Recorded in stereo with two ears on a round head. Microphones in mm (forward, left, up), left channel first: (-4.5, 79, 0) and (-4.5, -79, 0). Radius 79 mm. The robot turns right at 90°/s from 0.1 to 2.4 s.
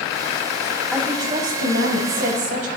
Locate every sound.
0.9 s a woman speaking: straight behind, 4 m; by 2.7 s 45° right, 4 m